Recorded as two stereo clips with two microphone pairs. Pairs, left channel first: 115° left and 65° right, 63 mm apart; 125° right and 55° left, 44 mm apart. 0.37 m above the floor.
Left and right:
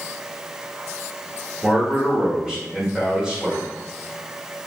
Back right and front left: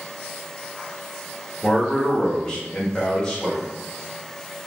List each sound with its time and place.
1.6 s a man speaking: 110° right, 0.8 m